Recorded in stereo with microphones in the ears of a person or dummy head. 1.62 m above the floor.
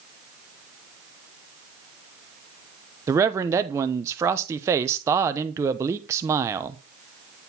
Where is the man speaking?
20° right (ahead or behind), 0.8 m.